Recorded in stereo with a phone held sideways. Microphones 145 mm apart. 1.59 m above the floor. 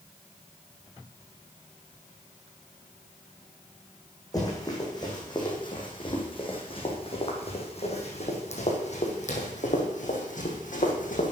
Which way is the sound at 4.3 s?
25° left (ahead or behind).